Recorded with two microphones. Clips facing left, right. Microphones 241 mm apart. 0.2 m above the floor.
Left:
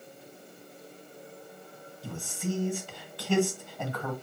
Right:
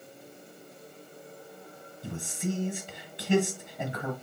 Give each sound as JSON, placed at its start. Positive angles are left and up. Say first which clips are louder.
{"t": 2.0, "sound": "a man speaking", "louder": "right 1 dB", "side_deg": -20, "distance_m": 1.4}